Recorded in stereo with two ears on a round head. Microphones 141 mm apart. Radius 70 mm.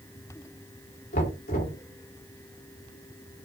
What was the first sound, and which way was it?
Knocking, 55° left (ahead or behind).